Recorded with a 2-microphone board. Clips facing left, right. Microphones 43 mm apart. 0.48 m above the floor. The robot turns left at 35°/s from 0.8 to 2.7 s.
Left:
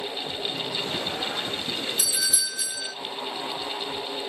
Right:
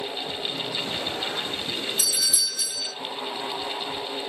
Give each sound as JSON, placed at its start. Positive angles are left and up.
{"t": 2.0, "sound": "a doorbell", "side_deg": 5, "distance_m": 1.6}